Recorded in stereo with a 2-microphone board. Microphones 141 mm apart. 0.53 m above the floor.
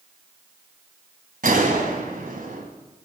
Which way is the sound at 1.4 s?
85° right.